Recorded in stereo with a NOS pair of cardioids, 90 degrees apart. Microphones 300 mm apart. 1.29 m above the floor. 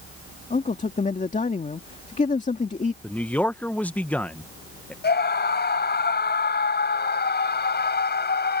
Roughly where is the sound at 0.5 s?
Ahead left.